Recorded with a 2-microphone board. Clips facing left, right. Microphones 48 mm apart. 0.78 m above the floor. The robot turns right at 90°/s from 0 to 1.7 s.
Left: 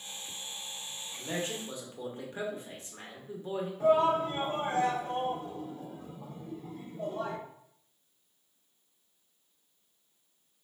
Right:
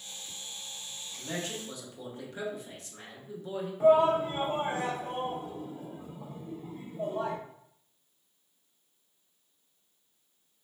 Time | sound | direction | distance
1.2 | a man speaking | 30° left | 1.0 m
3.8 | a shout | 20° right (ahead or behind) | 0.6 m